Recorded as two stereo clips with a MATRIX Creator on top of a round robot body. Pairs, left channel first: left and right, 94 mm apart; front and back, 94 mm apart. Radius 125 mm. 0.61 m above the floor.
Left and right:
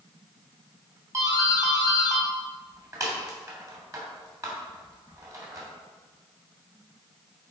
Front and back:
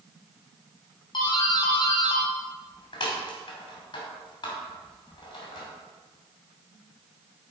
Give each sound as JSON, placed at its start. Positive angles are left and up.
{"t": 1.1, "sound": "a doorbell", "azimuth_deg": -40, "distance_m": 2.5}